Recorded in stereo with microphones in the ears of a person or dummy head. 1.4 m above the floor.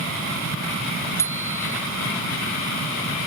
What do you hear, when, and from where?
1.2 s a bicycle bell: 15° left (ahead or behind)